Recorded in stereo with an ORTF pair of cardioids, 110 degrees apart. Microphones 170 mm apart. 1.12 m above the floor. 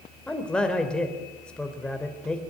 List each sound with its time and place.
0.3 s a man speaking: 5° left, 4 m